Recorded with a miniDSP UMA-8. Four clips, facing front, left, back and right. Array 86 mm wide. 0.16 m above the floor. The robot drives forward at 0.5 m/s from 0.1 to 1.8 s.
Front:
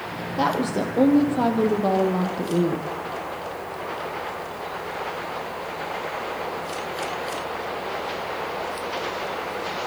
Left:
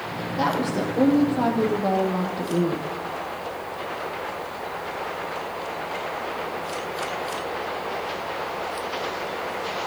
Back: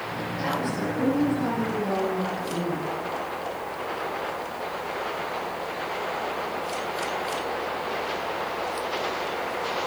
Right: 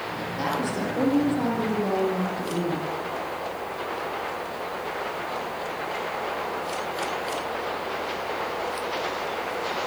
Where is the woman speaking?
20° left, 6 m.